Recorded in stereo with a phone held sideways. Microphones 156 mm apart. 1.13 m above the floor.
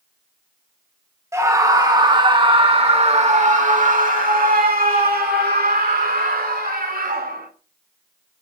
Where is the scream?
20° right (ahead or behind), 2 m; by 7.5 s 80° right, 3 m.